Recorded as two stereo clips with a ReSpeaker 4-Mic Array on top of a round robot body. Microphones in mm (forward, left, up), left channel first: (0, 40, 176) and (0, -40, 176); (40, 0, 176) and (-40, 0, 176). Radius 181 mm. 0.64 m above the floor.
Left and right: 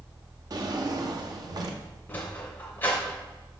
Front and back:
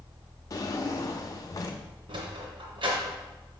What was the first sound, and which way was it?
A drawer, 50° right.